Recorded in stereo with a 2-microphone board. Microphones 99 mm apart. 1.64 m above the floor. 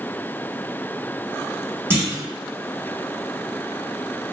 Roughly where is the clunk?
Right.